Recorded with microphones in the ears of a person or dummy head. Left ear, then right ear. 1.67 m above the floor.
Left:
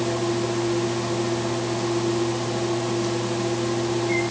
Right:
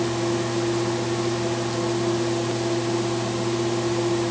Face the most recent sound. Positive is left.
No sound to turn to.